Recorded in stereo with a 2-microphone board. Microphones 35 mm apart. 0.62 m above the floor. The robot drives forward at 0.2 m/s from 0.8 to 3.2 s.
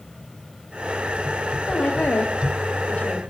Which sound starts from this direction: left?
A woman speaking, at 1.7 s.